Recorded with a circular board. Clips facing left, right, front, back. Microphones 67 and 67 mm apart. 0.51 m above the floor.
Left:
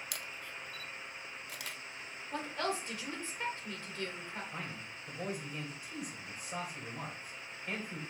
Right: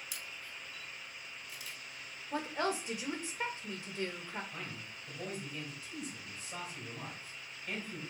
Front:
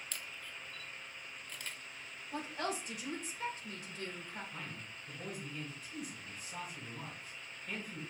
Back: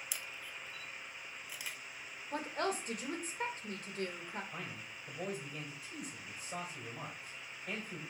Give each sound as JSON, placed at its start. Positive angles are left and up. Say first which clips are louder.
{"t": 0.1, "sound": "a camera shutter", "louder": "left 3 dB, back 1 dB", "azimuth_deg": 100, "distance_m": 0.7}
{"t": 2.3, "sound": "a woman speaking", "louder": "right 2 dB, back 2 dB", "azimuth_deg": -155, "distance_m": 1.8}
{"t": 4.5, "sound": "a man speaking", "louder": "left 2 dB, back 1 dB", "azimuth_deg": 160, "distance_m": 3.0}